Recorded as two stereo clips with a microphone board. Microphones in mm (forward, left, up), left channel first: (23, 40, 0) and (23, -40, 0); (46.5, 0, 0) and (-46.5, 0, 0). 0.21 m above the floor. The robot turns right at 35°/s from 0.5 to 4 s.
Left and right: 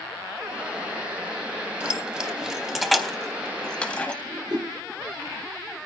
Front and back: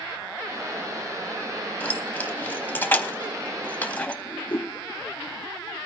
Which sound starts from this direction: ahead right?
Keys jangling, at 1.8 s.